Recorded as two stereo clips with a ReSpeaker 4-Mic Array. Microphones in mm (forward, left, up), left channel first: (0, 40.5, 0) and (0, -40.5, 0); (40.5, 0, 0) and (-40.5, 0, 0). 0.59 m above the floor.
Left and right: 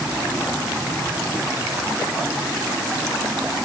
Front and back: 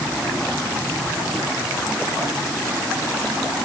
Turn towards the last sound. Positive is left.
No sound to turn to.